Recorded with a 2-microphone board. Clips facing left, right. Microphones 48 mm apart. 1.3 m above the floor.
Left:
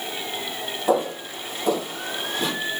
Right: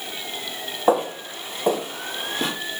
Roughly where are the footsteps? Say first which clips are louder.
Right 2 dB; right.